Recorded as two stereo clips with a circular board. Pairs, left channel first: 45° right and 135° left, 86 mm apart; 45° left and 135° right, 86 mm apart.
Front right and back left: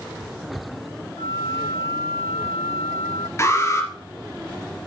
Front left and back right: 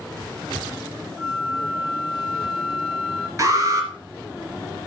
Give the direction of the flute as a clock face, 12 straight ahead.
2 o'clock.